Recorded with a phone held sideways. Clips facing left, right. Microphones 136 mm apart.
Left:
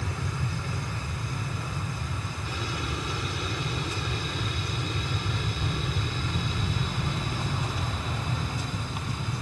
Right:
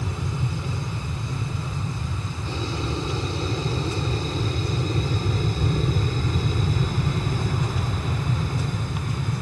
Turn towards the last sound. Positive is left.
turn(degrees=-50)  # may be behind; listen again after turning